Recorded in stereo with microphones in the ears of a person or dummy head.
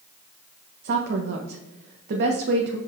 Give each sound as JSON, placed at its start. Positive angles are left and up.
{"t": 0.8, "sound": "a woman speaking", "side_deg": -65, "distance_m": 0.8}